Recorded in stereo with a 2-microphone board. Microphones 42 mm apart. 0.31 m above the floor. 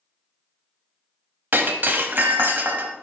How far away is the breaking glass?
About 0.8 m.